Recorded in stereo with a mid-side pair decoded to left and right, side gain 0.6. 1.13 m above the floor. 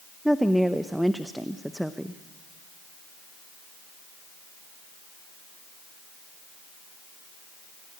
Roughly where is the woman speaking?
Ahead.